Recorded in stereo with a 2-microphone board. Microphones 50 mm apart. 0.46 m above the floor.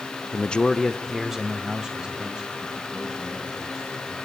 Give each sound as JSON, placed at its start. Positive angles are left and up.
{"t": 0.3, "sound": "a man speaking", "side_deg": 25, "distance_m": 0.8}